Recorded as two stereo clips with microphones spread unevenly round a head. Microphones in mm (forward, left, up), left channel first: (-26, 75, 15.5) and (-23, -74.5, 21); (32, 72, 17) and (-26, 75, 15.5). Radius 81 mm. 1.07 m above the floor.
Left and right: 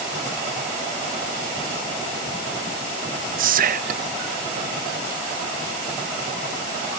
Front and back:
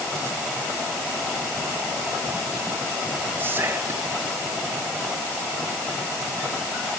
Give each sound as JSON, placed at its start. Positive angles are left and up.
{"t": 3.4, "sound": "whispering", "azimuth_deg": -115, "distance_m": 1.1}